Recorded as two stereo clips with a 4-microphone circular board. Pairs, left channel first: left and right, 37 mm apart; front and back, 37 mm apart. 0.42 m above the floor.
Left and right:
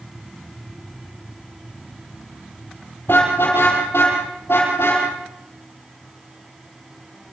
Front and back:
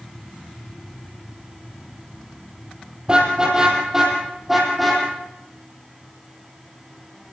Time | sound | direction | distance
3.1 | a car horn | 110° left | 5 m